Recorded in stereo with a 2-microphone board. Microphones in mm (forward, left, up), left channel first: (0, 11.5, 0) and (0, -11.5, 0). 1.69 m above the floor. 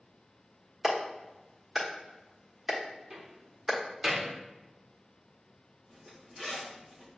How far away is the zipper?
About 1.1 m.